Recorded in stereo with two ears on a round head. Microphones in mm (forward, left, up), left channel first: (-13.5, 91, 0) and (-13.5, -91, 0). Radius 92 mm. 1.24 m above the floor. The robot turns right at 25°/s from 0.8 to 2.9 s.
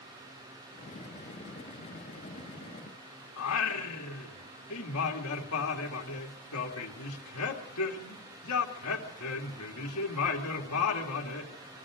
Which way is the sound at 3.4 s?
75° left (ahead or behind).